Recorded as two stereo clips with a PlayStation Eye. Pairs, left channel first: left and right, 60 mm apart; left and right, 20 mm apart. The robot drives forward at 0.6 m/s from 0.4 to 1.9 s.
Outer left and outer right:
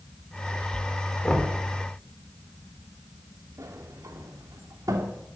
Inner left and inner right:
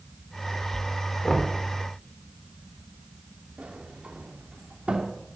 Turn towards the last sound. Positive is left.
turn(degrees=-75)  # may be behind; listen again after turning